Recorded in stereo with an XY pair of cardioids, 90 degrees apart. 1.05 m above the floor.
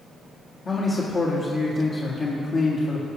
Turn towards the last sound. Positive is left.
turn(degrees=50)